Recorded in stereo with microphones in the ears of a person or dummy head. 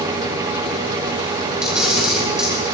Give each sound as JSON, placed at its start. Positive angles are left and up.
{"t": 1.6, "sound": "a camera shutter", "side_deg": -5, "distance_m": 4.5}